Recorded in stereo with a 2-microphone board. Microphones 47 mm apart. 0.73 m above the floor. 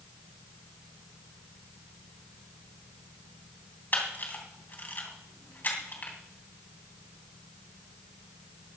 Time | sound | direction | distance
3.9 | a camera shutter | 40° left (ahead or behind) | 3 m